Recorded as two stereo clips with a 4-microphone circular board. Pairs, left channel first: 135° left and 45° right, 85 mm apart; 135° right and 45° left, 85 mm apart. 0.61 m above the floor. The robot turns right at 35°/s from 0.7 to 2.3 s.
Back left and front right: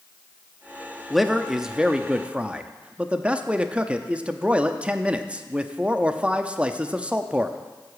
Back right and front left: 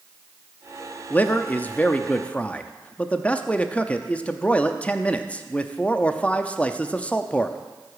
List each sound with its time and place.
1.1 s a man speaking: 140° right, 0.5 m; by 7.6 s 95° right, 0.5 m